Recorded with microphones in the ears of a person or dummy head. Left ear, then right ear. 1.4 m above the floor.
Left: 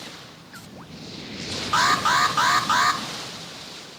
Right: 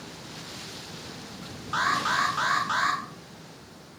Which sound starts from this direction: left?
An alarm, at 1.7 s.